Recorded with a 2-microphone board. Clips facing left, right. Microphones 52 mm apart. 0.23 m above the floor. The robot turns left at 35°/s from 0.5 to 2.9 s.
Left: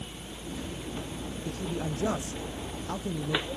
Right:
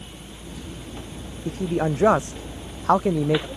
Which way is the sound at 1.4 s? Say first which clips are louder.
Right 11 dB; 40° right.